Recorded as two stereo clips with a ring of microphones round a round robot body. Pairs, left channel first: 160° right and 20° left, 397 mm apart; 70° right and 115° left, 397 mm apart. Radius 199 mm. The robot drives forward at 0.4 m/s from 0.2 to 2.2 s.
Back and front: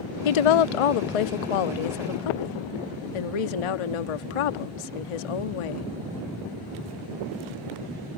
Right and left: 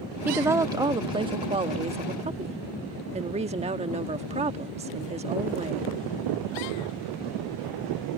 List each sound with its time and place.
0.2 s a woman speaking: 160° right; by 5.9 s 170° right